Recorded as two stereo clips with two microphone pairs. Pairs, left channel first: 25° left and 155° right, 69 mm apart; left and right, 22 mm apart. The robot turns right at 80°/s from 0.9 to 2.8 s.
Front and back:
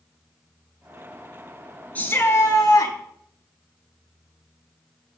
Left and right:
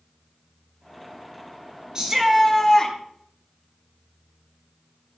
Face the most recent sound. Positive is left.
turn(degrees=30)